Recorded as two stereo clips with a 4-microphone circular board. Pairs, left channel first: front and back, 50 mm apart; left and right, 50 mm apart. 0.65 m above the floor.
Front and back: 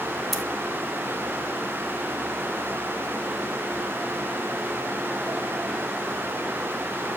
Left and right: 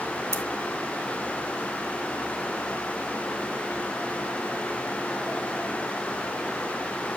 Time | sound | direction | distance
0.3 | scissors | 90° right | 1.6 m